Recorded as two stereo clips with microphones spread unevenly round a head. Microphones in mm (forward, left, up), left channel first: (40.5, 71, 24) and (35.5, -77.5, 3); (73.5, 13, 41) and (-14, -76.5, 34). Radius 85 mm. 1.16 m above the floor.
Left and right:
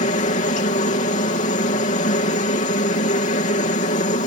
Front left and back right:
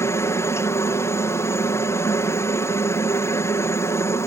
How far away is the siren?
I don't hear a siren.